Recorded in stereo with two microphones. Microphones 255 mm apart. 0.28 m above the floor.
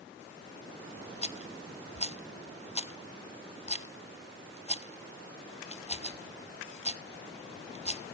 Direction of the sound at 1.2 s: 25° left (ahead or behind).